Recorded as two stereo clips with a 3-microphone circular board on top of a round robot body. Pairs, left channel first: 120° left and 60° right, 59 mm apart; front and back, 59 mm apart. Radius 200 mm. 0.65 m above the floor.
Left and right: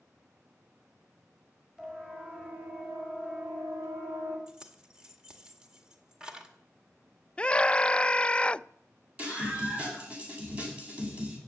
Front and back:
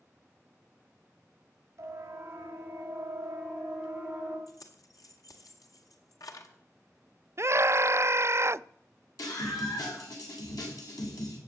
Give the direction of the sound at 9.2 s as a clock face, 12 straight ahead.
12 o'clock.